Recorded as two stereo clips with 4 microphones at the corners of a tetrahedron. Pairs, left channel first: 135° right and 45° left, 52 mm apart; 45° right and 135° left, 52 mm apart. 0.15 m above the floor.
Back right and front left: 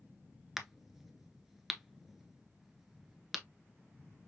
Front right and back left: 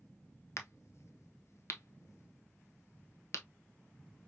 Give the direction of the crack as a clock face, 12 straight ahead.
1 o'clock.